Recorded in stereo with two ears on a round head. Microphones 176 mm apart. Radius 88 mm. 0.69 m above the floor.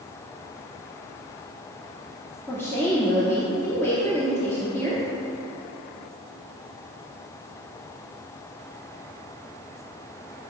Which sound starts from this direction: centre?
A woman speaking, at 2.5 s.